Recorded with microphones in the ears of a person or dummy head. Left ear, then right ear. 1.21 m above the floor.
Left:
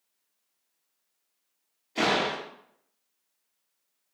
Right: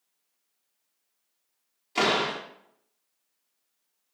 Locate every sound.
1.9 s a door slam: 45° right (ahead or behind), 1.2 m